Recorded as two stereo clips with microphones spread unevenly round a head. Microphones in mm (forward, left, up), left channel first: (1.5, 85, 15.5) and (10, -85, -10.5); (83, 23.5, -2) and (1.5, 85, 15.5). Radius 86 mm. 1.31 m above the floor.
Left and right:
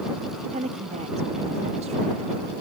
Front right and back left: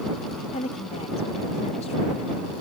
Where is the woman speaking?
35° right.